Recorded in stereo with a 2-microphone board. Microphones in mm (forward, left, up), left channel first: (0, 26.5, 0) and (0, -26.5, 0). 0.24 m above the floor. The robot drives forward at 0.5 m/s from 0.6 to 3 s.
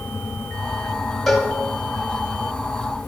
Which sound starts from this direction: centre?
A cowbell, at 1.3 s.